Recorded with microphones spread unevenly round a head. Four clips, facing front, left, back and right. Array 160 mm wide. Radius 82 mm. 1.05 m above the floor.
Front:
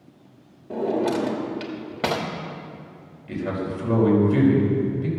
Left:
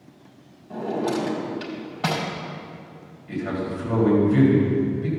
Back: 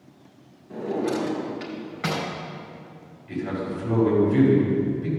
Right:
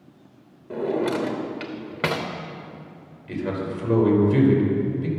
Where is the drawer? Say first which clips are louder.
Right 1 dB, front 3 dB; 35° right, 1.2 m.